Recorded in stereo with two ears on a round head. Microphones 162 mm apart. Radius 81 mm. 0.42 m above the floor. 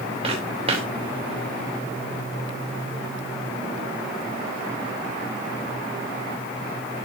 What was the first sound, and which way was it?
Footsteps, 35° right (ahead or behind).